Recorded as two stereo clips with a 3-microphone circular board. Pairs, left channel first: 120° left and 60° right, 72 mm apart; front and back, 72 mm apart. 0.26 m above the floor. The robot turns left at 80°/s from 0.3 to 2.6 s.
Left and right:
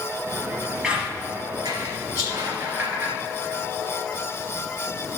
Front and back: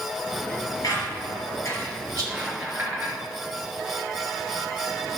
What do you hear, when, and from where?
0.8 s a squeak: 25° left, 3 m; by 3.1 s 115° right, 3 m
2.1 s a rattle: 20° right, 3 m; by 2.5 s 55° right, 3 m